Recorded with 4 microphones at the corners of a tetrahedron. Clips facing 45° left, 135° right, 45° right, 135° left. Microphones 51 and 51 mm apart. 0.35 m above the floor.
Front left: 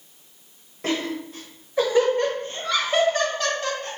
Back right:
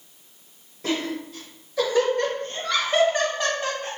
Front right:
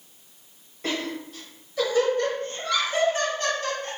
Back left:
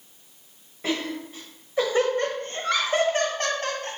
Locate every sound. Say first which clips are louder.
0.8 s laughter: front left 1 dB, back left 1 dB; 55° left, 1.3 m; by 3.9 s 150° left, 1.7 m